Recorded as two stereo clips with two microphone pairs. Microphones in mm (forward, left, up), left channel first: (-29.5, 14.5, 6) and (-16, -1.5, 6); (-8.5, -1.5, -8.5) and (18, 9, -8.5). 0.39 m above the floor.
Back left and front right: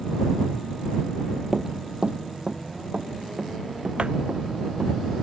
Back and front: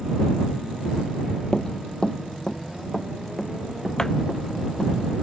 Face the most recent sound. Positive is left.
turn(degrees=-90)